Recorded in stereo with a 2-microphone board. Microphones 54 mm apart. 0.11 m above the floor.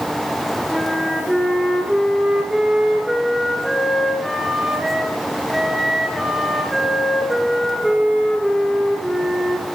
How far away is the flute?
About 1.6 m.